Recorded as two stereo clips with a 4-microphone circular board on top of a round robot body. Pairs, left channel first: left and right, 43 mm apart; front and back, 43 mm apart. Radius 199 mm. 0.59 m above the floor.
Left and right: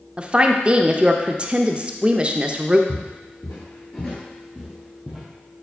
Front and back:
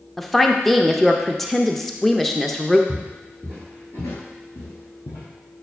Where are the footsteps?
130° left, 0.9 m; by 5.2 s 10° right, 1.5 m.